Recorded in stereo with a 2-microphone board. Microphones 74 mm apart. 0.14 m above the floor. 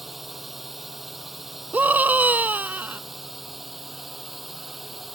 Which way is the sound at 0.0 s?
Centre (ahead or behind).